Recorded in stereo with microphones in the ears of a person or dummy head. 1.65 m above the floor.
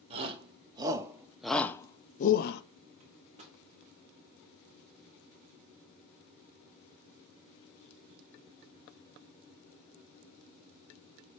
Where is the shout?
35° right (ahead or behind), 1.8 m; by 2.6 s 60° left (ahead or behind), 0.9 m.